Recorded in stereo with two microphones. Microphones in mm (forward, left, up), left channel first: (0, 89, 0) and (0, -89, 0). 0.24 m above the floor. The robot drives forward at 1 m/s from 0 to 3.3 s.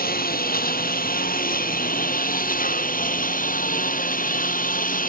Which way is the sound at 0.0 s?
55° left (ahead or behind).